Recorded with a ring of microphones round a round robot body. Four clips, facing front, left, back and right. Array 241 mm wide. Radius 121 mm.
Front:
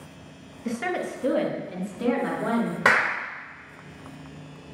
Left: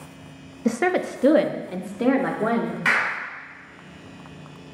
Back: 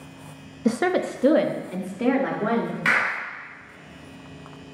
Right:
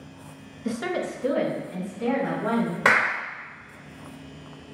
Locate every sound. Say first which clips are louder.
0.7 s a woman speaking: left 6 dB, back 6 dB; 145° left, 0.9 m; by 2.8 s 100° left, 2.5 m
2.9 s a clap: right 4 dB, front 4 dB; 35° right, 3 m